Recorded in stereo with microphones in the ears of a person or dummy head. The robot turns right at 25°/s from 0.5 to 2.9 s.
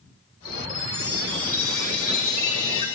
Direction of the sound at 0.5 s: Centre (ahead or behind).